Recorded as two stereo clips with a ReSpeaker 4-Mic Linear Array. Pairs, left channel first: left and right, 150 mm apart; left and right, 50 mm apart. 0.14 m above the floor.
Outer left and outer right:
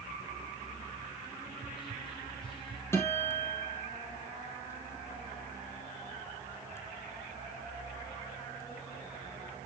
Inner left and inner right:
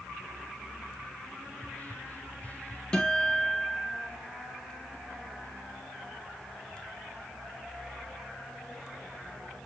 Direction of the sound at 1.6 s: 30° left (ahead or behind).